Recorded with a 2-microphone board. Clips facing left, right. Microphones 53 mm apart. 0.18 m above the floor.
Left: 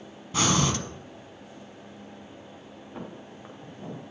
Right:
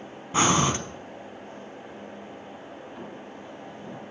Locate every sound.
0.3 s breathing: 25° right (ahead or behind), 0.8 m
3.0 s footsteps: 20° left (ahead or behind), 2.5 m; by 4.0 s 30° left (ahead or behind), 3 m